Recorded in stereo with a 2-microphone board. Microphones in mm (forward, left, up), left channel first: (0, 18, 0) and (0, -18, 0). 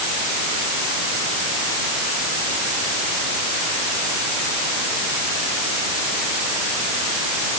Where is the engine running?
No engine running in this recording.